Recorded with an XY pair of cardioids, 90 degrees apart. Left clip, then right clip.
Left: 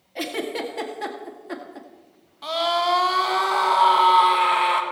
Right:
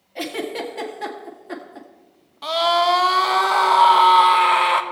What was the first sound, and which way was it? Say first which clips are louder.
A giggle: right 1 dB; 5° left.